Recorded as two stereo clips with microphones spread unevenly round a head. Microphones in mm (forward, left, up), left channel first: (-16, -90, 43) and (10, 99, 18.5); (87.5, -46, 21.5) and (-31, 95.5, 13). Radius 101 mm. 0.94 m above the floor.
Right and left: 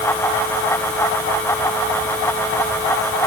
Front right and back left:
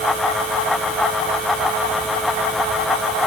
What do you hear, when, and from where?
Only background noise.